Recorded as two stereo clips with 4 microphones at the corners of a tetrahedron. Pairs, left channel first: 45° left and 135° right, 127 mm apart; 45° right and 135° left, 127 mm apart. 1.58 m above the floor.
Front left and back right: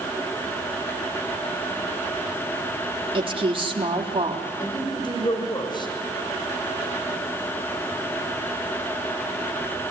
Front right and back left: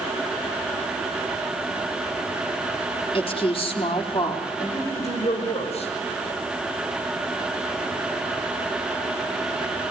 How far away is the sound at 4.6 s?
About 6 m.